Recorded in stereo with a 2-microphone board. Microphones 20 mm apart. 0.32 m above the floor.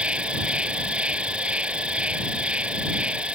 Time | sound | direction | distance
0.0 | an insect | 80° right | ?